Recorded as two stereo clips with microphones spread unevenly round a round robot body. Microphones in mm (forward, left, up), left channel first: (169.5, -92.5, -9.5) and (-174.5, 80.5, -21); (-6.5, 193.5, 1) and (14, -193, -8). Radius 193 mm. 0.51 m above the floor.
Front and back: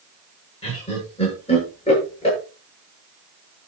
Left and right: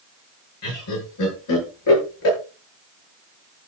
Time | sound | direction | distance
0.6 | laughter | 50° left | 9.5 m